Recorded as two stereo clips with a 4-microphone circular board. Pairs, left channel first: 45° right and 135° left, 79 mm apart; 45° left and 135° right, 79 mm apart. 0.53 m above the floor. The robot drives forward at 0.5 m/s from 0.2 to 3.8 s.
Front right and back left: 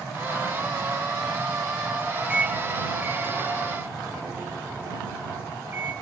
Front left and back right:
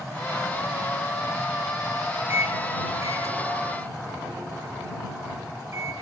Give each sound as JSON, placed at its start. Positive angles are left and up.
{"t": 2.3, "sound": "a microwave", "azimuth_deg": -155, "distance_m": 0.8}